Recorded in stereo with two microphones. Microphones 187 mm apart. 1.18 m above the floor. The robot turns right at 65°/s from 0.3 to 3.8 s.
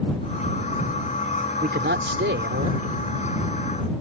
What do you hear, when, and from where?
1.6 s a man speaking: 130° right; by 3.0 s 40° right